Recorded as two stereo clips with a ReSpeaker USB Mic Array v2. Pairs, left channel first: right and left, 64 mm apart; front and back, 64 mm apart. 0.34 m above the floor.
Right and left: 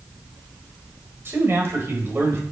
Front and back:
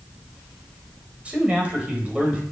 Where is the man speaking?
115° left, 1.2 m.